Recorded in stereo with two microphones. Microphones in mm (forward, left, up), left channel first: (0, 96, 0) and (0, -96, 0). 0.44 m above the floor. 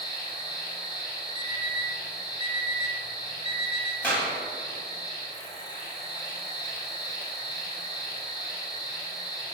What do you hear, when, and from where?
0.0 s an insect: 20° left (ahead or behind), 1.5 m
1.4 s an alarm clock: 30° right (ahead or behind), 0.8 m
4.0 s a clap: 10° left (ahead or behind), 1.9 m